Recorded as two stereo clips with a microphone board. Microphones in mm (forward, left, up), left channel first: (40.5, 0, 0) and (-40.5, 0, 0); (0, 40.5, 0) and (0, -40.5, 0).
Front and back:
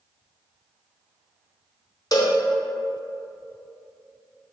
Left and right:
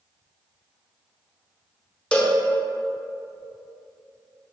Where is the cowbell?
20° left, 0.7 m.